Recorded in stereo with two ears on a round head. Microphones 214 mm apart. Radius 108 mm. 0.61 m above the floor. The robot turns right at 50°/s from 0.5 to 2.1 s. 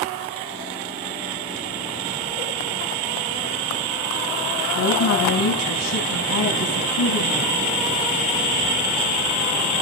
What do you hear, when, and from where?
4.8 s a woman speaking: 80° left, 4.5 m